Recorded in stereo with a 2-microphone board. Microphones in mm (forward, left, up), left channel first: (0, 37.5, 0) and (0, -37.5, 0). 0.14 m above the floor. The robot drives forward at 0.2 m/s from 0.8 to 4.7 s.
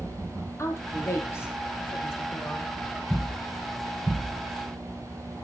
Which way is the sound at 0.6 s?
40° left (ahead or behind).